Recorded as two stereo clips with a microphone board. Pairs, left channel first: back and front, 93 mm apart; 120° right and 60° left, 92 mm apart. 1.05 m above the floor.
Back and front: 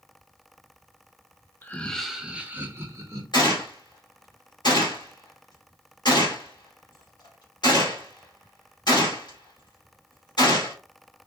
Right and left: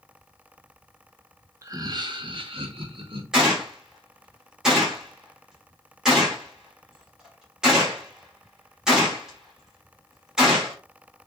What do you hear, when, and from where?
1.6 s laughter: 115° left, 0.8 m; by 3.2 s 50° left, 1.2 m
3.3 s a gunshot: 145° left, 1.6 m